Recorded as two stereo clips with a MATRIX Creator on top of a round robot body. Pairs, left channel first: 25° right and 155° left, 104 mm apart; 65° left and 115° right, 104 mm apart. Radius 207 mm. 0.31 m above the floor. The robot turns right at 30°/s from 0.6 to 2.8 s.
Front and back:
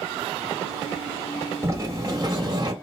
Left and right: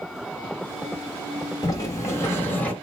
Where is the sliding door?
105° left, 1.6 m; by 2.7 s 135° left, 1.6 m.